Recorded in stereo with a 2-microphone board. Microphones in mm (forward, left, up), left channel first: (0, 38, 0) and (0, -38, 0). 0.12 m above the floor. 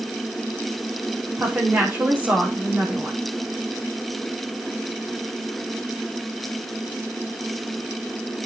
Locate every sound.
1.4 s a woman speaking: 30° right (ahead or behind), 7.5 m